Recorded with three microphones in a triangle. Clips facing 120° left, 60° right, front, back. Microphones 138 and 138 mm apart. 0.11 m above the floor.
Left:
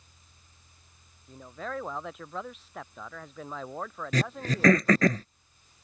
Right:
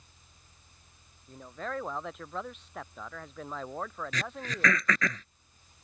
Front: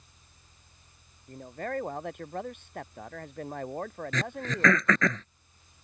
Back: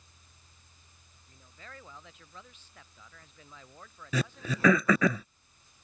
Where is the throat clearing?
105° left.